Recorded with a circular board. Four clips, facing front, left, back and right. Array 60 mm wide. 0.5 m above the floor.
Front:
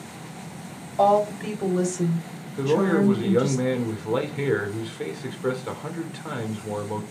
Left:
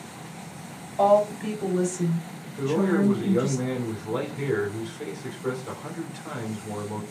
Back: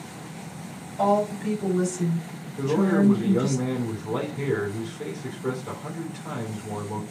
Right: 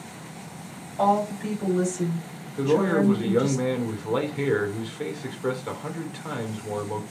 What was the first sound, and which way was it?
A woman speaking, 20° left.